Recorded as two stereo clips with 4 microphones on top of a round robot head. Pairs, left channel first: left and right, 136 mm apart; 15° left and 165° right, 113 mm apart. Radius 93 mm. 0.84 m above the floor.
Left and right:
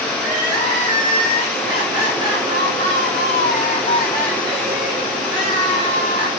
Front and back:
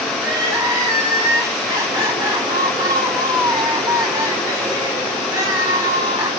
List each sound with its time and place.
0.2 s crying: 110° right, 2.5 m